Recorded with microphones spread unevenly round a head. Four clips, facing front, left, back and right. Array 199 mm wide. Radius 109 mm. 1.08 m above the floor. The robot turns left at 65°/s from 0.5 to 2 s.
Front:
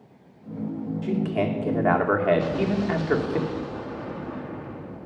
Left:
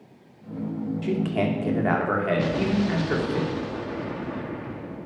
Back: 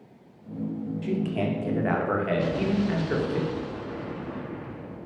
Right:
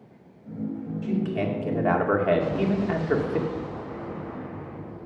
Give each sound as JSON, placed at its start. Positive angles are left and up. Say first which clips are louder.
{"t": 1.0, "sound": "a man speaking", "louder": "left 1 dB, front 3 dB", "azimuth_deg": 50, "distance_m": 2.5}
{"t": 2.4, "sound": "an explosion", "louder": "left 1 dB, front 1 dB", "azimuth_deg": 70, "distance_m": 1.7}